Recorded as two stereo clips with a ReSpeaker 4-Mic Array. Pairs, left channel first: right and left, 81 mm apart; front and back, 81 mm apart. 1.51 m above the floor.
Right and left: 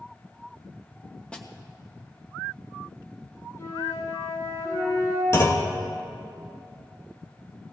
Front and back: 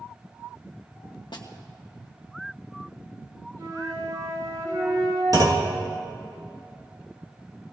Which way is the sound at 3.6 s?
140° right.